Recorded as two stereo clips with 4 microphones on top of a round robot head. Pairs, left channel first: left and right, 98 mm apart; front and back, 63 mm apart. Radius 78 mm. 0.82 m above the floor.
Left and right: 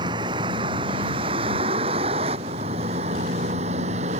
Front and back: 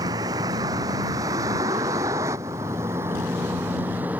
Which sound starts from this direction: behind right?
A vehicle, at 0.0 s.